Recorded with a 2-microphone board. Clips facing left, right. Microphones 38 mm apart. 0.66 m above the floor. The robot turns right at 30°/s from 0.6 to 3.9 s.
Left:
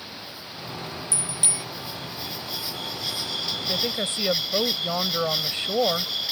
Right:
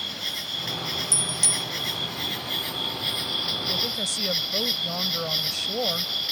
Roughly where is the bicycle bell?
Left.